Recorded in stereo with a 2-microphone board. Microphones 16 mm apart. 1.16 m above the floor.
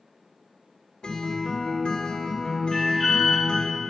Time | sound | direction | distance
1.0 | a guitar | 70° left (ahead or behind) | 2 m
2.7 | an alarm | 10° left (ahead or behind) | 3.5 m